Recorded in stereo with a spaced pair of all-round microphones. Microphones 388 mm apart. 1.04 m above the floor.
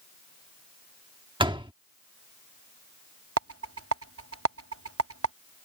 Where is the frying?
I don't hear frying.